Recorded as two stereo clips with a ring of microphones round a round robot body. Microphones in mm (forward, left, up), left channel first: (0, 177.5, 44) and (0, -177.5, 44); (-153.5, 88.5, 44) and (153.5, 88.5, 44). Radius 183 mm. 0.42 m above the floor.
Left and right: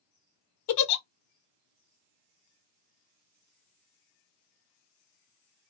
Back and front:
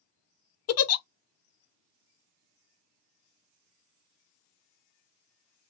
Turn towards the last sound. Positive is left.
turn(degrees=135)